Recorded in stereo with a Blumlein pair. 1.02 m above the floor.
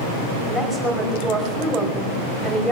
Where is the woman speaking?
5° left, 5 m.